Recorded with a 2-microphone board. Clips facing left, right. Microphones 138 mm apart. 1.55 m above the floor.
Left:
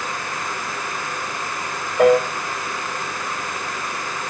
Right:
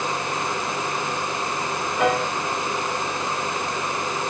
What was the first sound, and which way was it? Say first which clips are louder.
A piano: left 8 dB; 50° left (ahead or behind).